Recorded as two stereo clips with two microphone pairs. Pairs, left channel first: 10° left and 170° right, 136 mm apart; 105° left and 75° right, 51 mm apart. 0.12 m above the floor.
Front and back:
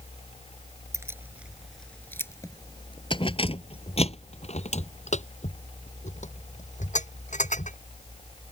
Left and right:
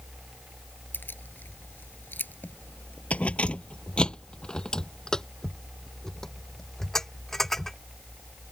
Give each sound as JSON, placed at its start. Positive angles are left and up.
{"t": 0.9, "sound": "keys jangling", "azimuth_deg": 130}